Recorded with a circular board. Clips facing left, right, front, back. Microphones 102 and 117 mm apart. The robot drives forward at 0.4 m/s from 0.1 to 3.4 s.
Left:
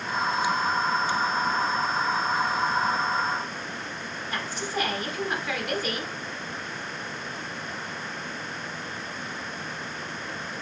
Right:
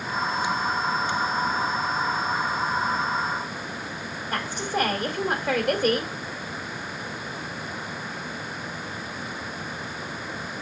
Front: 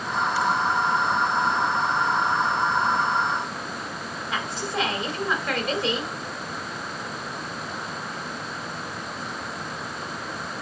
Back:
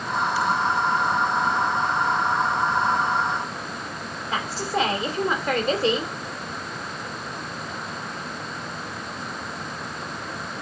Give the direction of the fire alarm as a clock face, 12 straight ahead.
I don't hear a fire alarm.